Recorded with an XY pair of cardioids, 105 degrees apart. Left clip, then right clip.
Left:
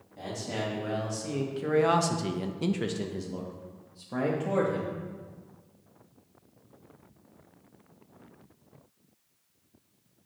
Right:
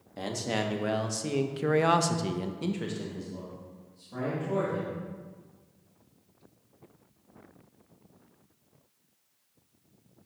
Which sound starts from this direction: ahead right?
A man speaking, at 0.2 s.